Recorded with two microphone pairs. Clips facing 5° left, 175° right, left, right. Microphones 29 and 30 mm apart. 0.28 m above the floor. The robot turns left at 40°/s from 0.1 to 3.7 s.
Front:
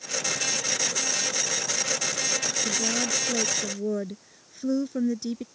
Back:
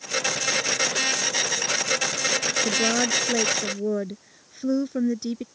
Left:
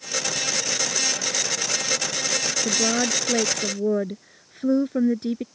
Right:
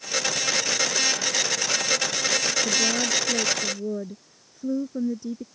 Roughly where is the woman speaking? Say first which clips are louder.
Back 6 dB, left 1 dB; behind left.